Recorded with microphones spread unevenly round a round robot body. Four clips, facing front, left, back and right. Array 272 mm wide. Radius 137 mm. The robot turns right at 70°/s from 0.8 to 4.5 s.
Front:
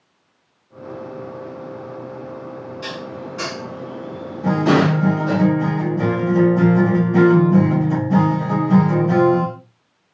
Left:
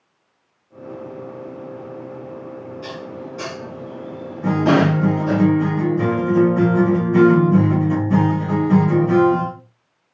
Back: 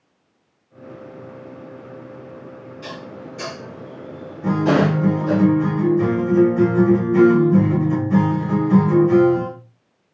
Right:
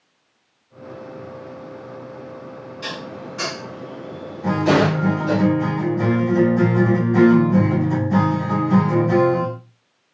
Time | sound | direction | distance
2.8 | dishes clattering | 65° right | 5 m
4.4 | a guitar | 65° left | 5 m